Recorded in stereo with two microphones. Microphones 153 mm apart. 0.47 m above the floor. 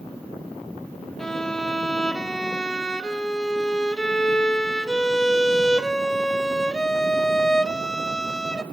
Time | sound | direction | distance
1.2 | a violin | 5° left (ahead or behind) | 0.7 m